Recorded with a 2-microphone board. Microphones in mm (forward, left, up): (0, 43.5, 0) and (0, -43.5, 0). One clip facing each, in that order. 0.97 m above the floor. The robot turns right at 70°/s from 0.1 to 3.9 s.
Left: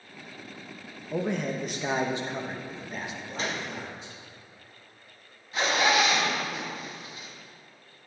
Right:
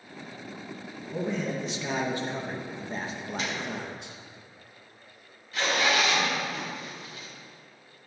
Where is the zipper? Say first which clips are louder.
Left 2 dB; 20° left (ahead or behind), 3 m.